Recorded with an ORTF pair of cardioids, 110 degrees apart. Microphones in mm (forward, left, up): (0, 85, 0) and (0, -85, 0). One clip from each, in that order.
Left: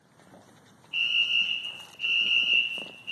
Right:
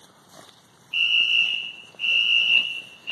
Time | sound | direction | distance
0.9 | a fire alarm | 30° right | 1.4 m